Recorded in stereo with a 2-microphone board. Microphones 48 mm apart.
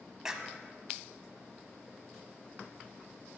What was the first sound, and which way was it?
A clap, 15° right (ahead or behind).